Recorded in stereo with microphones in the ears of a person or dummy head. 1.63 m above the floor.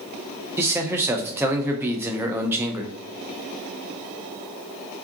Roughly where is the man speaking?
Centre.